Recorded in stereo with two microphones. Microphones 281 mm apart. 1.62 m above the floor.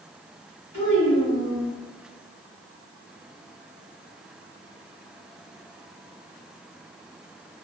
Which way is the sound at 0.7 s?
70° left (ahead or behind).